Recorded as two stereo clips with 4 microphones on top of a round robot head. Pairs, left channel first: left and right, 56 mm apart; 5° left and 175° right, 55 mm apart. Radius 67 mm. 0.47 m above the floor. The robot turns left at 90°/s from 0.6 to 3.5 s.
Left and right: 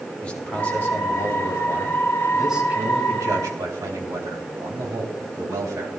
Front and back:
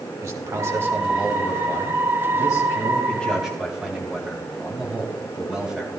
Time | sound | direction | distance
0.2 | a man speaking | 160° left | 3 m